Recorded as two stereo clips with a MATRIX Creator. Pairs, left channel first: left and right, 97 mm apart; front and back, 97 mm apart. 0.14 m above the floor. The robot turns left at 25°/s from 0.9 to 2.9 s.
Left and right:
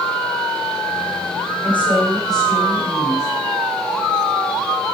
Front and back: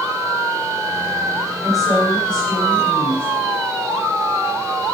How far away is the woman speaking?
About 7.5 m.